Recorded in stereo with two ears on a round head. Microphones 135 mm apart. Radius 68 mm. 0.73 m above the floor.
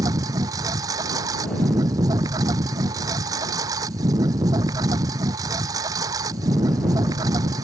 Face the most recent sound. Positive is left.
turn(degrees=-25)  # may be behind; listen again after turning